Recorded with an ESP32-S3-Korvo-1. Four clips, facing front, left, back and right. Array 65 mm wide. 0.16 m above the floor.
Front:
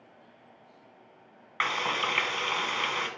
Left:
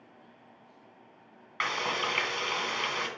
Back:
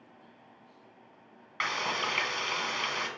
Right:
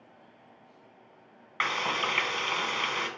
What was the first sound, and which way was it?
Frying, 30° right.